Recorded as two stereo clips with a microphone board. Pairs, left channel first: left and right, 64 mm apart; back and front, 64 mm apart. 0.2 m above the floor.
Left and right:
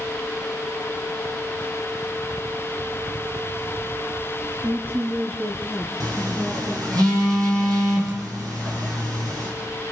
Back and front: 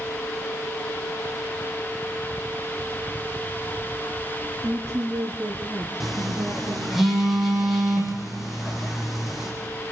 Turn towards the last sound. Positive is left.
turn(degrees=-85)